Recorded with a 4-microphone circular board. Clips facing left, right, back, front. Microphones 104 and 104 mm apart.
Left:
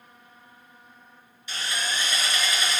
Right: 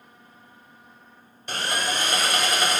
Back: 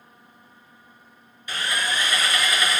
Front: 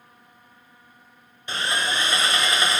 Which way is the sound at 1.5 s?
60° right.